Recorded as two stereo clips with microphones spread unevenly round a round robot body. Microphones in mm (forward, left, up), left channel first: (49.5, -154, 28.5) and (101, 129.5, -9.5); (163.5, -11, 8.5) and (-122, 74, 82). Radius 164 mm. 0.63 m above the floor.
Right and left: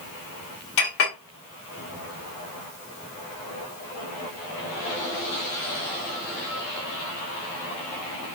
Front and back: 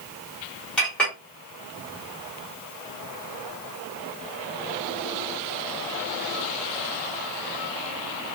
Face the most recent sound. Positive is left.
turn(degrees=-100)